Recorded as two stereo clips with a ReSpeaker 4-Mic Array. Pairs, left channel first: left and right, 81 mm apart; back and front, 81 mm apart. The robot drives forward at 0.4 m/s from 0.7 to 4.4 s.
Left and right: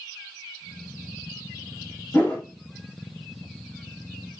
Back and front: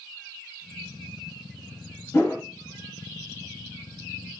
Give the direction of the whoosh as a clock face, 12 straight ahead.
7 o'clock.